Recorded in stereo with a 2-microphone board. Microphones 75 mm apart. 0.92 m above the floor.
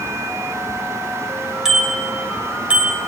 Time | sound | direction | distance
1.6 | a bicycle bell | 5° right (ahead or behind) | 3 m